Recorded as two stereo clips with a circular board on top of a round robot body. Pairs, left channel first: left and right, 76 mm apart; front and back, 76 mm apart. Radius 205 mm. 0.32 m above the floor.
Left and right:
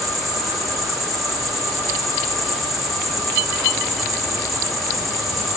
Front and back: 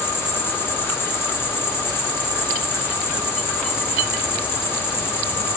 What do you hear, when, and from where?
0.0 s an insect: straight ahead, 1.0 m